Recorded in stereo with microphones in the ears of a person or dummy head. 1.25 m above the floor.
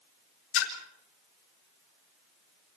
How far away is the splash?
About 4.5 m.